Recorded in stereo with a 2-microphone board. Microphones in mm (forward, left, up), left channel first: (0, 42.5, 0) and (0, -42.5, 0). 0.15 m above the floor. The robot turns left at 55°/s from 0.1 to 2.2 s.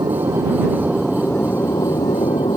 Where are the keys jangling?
No keys jangling in this recording.